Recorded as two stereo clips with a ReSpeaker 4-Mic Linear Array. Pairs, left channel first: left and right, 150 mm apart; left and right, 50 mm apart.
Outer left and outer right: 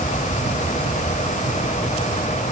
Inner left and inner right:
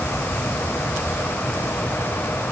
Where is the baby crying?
No baby crying in this recording.